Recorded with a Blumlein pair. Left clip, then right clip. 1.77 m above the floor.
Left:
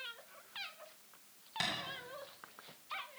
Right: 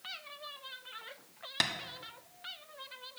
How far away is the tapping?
About 1.2 m.